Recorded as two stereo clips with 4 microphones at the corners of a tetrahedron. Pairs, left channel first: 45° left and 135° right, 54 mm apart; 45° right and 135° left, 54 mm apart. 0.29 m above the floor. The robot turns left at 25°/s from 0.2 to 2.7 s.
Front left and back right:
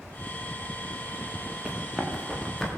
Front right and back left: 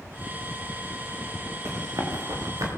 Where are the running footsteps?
155° left, 8.5 m; by 2.7 s 125° left, 9 m.